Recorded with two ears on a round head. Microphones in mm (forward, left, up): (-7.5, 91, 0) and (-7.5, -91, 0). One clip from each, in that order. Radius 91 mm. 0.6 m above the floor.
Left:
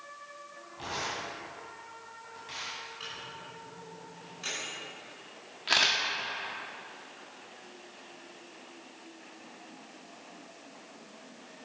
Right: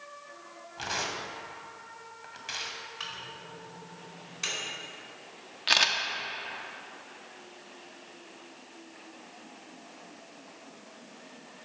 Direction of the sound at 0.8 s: 65° right (ahead or behind).